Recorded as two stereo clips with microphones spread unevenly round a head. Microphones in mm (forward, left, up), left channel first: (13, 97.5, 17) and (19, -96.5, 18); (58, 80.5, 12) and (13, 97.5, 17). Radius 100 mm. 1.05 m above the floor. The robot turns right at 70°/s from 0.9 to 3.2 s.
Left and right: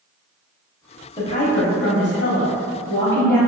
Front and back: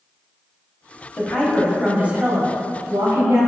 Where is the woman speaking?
30° left, 0.8 m; by 3.5 s 170° left, 0.8 m.